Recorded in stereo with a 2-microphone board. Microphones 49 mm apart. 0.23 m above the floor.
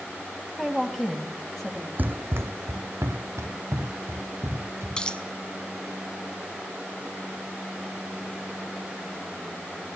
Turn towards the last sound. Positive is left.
turn(degrees=20)  # may be behind; listen again after turning